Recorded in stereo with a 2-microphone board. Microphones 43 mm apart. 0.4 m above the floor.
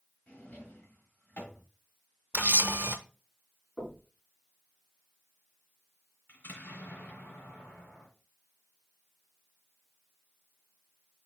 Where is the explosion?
45° left (ahead or behind), 2 m.